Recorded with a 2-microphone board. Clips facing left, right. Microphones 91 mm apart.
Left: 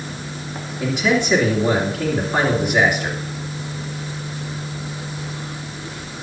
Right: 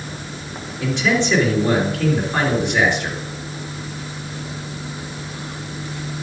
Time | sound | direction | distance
0.8 | a man speaking | 10° left (ahead or behind) | 3 m